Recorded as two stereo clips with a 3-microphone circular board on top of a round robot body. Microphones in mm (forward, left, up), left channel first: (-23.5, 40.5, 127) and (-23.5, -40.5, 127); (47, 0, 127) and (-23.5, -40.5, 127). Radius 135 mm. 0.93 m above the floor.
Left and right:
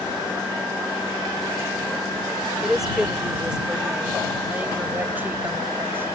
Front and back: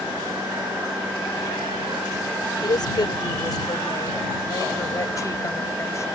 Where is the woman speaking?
5° right; by 6.0 s 25° right.